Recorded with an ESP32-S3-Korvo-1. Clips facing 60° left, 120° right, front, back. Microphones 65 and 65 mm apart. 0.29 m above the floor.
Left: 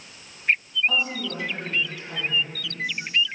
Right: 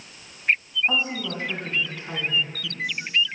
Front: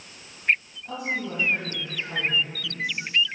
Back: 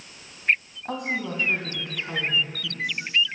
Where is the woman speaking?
Straight behind, 2 m; by 3.1 s 145° right, 3.5 m.